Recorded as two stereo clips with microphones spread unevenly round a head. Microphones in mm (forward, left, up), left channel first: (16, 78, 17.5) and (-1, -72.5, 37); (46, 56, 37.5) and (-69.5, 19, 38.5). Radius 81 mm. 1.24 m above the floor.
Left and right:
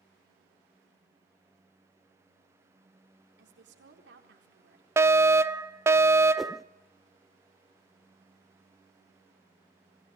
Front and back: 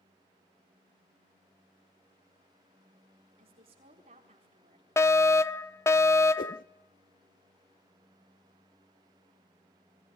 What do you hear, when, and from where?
3.4 s a woman speaking: 110° right, 4 m
5.0 s a fire alarm: 25° right, 0.9 m
6.4 s a whoosh: 10° right, 0.6 m